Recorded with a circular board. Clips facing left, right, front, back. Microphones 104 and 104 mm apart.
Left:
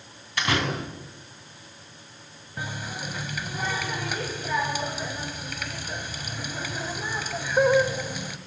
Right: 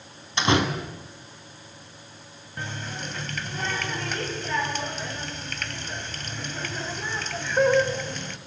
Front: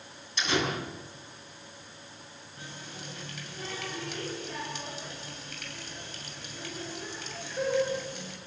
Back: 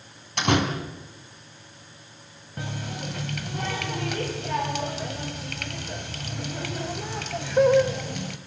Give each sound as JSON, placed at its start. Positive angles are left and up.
{"t": 0.4, "sound": "a door slam", "azimuth_deg": -155, "distance_m": 4.0}
{"t": 2.6, "sound": "a running tap", "azimuth_deg": 170, "distance_m": 1.9}